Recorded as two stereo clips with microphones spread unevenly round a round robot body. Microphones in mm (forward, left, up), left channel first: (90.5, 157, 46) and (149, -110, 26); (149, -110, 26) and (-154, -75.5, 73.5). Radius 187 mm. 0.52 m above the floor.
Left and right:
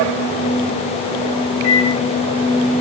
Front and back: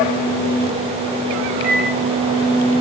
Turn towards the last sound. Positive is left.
turn(degrees=-70)